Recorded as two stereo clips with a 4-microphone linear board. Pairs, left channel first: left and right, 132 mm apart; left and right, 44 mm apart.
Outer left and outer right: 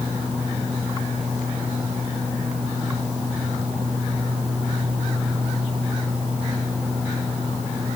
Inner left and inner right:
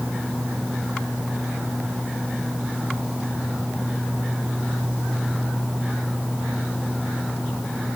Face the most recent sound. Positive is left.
No sound to turn to.